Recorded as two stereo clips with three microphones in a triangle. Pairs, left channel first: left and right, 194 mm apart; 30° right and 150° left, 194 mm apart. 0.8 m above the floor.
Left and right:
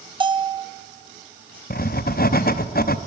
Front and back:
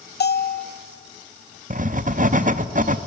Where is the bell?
30° right, 0.6 m.